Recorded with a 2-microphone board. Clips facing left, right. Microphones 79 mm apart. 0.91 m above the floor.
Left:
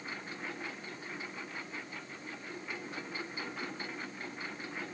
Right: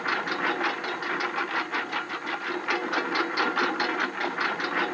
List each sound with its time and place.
0.0 s a lawn mower: 85° right